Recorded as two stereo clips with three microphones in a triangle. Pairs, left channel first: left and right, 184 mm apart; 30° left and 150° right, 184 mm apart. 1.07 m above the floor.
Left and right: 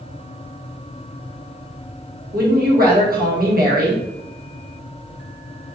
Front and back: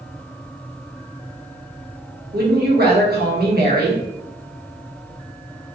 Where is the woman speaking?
125° right, 1.1 m.